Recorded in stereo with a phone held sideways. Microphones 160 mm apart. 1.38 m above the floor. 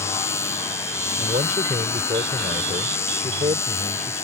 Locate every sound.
0.0 s a machine running: 15° left (ahead or behind)
1.2 s a man speaking: 55° right (ahead or behind)